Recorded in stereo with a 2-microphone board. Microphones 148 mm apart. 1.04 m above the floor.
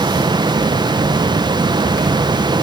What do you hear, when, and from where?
Only background noise.